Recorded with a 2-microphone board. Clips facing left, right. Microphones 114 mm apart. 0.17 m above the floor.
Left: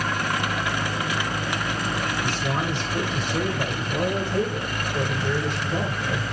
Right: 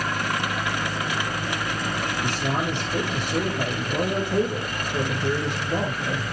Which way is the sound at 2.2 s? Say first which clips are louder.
Even; 65° right (ahead or behind).